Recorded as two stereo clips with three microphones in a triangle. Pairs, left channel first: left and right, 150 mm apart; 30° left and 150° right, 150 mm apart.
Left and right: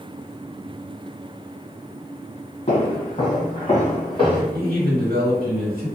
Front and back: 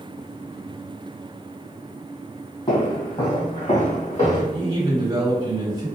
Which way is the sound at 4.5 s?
85° right.